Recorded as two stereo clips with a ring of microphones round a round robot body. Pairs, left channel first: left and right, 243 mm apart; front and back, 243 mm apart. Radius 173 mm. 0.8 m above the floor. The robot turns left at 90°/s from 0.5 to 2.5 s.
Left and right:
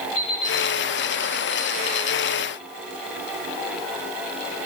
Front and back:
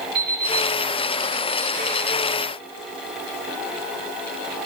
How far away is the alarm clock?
About 9 m.